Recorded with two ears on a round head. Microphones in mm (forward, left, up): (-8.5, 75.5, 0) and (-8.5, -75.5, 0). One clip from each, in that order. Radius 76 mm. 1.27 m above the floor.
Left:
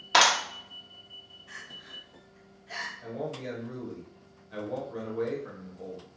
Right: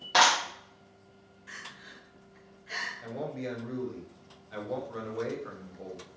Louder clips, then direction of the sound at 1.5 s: Even; 50° right (ahead or behind).